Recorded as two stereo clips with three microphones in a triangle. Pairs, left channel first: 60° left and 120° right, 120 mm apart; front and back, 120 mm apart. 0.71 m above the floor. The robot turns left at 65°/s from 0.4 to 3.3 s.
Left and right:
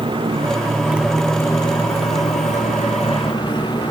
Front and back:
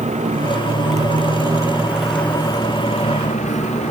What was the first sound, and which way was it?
A motorcycle, 165° right.